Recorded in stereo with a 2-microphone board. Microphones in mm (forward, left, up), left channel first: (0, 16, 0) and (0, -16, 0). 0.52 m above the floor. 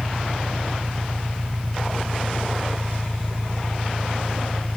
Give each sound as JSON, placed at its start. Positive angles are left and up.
{"t": 0.0, "sound": "an engine running", "side_deg": -40}